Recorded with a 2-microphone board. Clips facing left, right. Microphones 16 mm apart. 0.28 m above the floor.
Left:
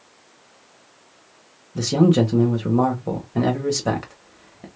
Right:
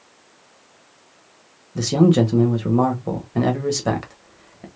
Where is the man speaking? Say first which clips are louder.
Right 1 dB; 15° right (ahead or behind), 0.9 m.